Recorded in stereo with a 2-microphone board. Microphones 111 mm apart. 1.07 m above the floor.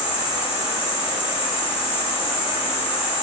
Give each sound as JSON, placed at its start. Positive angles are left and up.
{"t": 0.0, "sound": "an insect", "side_deg": 55, "distance_m": 1.4}